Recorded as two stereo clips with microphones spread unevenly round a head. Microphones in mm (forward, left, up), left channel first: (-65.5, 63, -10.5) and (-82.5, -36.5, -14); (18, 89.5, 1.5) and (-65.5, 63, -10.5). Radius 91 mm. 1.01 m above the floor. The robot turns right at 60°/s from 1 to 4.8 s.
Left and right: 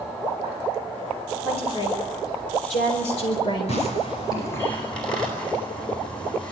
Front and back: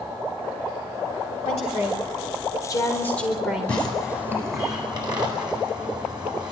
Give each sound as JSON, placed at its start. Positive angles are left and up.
{"t": 1.4, "sound": "a woman speaking", "azimuth_deg": -10, "distance_m": 4.0}
{"t": 3.7, "sound": "tearing paper", "azimuth_deg": 95, "distance_m": 9.0}